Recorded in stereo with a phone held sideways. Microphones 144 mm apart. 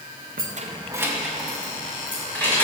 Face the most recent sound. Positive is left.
turn(degrees=15)  # may be behind; listen again after turning